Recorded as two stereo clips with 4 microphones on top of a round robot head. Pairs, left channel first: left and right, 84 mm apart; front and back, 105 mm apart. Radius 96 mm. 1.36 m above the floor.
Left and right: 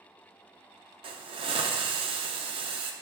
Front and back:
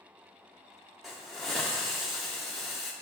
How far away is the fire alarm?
I don't hear a fire alarm.